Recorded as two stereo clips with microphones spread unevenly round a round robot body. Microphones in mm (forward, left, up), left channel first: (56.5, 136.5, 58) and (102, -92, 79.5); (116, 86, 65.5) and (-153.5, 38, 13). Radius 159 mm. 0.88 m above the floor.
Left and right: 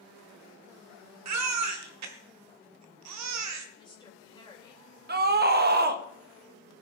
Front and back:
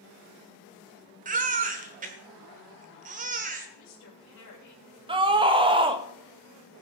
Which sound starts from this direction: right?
A baby crying, at 1.2 s.